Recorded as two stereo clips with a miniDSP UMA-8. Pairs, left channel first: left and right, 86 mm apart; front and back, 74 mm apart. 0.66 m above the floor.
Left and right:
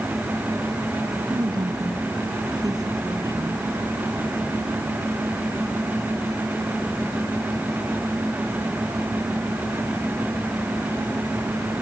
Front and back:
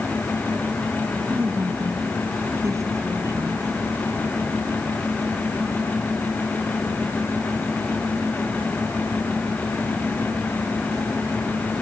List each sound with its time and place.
1.3 s a woman speaking: 120° right; by 3.7 s 140° right